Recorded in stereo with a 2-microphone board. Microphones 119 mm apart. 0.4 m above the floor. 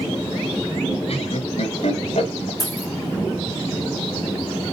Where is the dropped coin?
35° left (ahead or behind), 3.5 m.